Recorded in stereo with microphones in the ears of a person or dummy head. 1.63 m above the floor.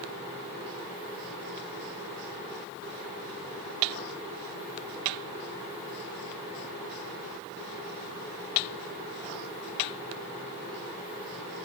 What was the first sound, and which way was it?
Only background noise.